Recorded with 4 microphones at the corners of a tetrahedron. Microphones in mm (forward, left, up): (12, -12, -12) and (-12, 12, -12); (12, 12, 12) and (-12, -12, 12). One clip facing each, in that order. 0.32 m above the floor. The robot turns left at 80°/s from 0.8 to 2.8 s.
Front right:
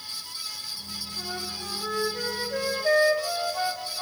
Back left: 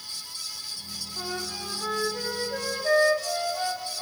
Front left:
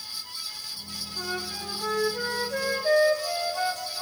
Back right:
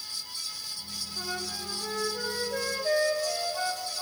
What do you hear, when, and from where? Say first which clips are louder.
1.2 s a flute: back left 2 dB, front left 3 dB; 125° left, 0.7 m; by 4.0 s 5° right, 0.7 m